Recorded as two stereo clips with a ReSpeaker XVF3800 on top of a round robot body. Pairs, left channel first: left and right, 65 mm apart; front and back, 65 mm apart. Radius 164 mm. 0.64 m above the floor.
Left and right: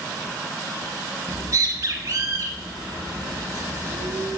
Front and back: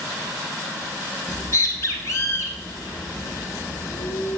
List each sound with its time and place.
1.3 s a bird: 45° right, 0.6 m